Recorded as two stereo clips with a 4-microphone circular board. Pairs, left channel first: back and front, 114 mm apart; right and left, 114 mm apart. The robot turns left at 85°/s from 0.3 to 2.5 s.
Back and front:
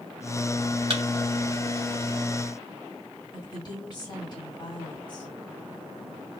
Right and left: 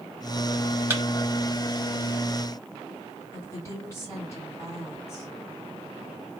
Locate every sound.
0.9 s a thud: 25° left, 0.7 m; by 1.0 s 15° left, 0.7 m
3.3 s a woman speaking: 145° right, 1.9 m